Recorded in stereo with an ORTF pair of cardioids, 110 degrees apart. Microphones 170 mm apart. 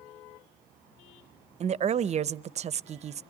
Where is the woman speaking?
40° right, 0.8 m.